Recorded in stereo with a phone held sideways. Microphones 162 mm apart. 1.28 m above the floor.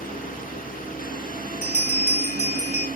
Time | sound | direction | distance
0.0 | a fan | 60° left (ahead or behind) | 2.0 m
1.6 | a bell | 45° left (ahead or behind) | 5 m